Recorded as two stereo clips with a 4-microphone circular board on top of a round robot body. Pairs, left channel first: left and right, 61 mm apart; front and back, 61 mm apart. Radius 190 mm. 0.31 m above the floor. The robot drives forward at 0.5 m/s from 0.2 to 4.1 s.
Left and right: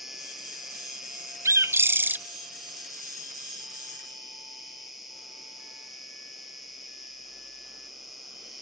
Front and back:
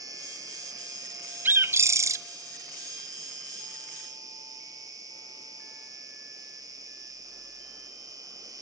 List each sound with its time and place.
0.0 s an insect: 175° right, 3 m
1.4 s a bird: 125° right, 0.6 m; by 2.2 s 150° right, 0.8 m